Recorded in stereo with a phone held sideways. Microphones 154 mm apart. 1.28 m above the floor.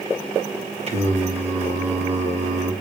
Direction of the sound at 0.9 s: 45° right (ahead or behind).